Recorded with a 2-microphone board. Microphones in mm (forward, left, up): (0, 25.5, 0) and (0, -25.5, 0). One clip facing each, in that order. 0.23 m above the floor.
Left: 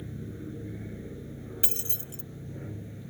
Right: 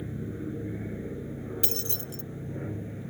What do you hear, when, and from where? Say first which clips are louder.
0.0 s an aircraft: right 4 dB; 20° right (ahead or behind); by 3.1 s 25° right (ahead or behind)
1.6 s keys jangling: right 4 dB; 20° left (ahead or behind)